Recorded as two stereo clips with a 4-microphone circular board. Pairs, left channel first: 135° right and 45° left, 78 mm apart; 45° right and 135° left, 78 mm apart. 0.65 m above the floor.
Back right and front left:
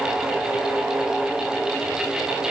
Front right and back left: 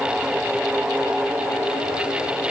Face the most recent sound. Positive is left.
No sound to turn to.